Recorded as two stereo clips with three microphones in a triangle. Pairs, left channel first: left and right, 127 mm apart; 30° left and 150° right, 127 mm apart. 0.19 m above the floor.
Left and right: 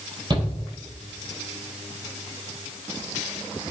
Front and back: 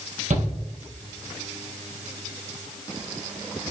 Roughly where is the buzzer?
No buzzer in this recording.